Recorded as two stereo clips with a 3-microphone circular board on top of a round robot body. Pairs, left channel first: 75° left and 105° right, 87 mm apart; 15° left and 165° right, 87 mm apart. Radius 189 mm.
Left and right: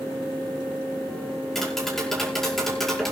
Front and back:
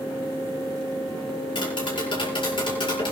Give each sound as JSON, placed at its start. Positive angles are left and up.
{"t": 1.6, "sound": "tapping", "azimuth_deg": -15, "distance_m": 6.0}